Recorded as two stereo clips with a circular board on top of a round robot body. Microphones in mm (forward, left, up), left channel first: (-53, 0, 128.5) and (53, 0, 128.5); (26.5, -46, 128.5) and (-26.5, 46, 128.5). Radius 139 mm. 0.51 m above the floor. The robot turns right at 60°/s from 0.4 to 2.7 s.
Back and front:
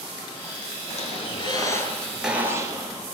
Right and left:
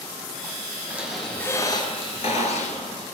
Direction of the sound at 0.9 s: 165° right.